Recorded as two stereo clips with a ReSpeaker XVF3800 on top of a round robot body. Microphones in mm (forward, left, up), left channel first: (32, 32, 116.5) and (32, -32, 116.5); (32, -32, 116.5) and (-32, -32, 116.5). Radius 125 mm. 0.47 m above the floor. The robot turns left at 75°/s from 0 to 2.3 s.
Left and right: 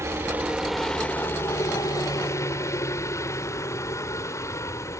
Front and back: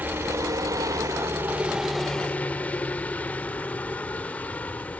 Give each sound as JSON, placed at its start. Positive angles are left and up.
{"t": 0.0, "sound": "a helicopter", "azimuth_deg": -125}